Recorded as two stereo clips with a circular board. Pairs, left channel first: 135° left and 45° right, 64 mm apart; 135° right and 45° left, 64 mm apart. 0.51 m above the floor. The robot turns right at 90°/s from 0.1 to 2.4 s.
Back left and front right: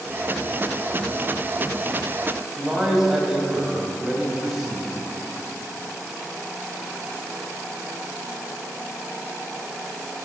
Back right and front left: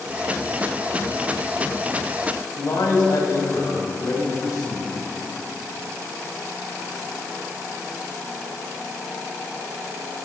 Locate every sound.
2.6 s a man speaking: 130° right, 3 m